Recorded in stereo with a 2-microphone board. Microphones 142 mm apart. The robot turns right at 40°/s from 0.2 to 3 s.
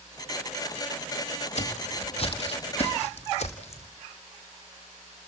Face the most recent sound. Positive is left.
turn(degrees=50)  # may be behind; listen again after turning